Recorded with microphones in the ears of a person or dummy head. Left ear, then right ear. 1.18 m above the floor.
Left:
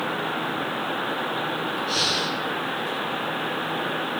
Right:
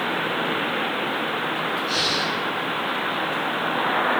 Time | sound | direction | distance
1.9 | breathing | centre (ahead or behind) | 4 m